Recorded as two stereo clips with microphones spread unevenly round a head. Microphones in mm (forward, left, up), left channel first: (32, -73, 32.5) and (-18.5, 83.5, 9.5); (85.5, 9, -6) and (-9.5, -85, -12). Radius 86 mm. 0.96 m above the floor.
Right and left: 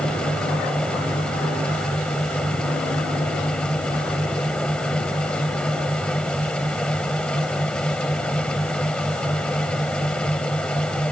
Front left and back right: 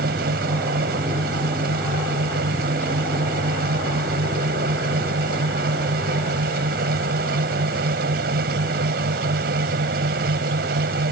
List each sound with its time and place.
0.0 s a fan: 155° right